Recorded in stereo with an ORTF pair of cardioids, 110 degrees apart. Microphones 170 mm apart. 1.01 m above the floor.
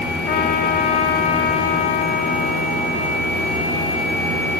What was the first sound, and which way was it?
A trumpet, 70° left.